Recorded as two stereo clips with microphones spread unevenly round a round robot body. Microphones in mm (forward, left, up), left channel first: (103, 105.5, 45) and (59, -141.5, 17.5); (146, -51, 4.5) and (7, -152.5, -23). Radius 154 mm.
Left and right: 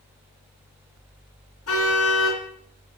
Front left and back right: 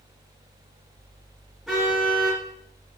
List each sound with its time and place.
1.7 s a car horn: 125° left, 3 m